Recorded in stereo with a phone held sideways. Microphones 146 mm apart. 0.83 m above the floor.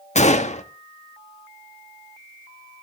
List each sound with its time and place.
0.1 s a gunshot: 50° left (ahead or behind), 1.2 m